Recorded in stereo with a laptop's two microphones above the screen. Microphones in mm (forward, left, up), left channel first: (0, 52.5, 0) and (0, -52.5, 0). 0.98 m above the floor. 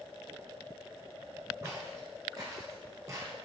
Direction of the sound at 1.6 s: 30° right (ahead or behind).